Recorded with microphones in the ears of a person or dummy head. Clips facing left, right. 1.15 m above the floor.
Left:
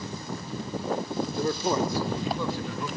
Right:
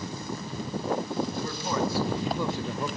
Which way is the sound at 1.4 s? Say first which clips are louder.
Left 3 dB; 40° left (ahead or behind).